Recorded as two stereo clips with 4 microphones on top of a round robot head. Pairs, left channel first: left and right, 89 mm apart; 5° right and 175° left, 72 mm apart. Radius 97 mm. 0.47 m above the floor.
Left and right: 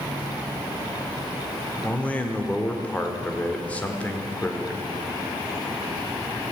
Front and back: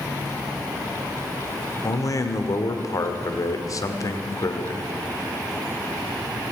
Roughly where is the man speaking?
Ahead.